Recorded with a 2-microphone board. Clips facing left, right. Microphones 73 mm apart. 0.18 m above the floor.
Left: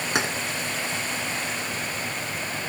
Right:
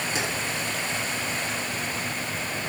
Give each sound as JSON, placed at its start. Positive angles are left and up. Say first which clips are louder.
{"t": 0.1, "sound": "keys jangling", "louder": "left 6 dB", "side_deg": 60, "distance_m": 1.5}